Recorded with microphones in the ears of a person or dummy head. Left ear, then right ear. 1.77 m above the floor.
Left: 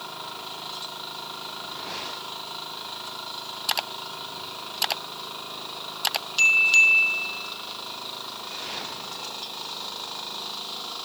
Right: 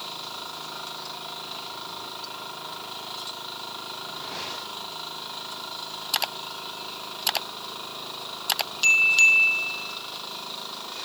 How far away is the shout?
No shout in this recording.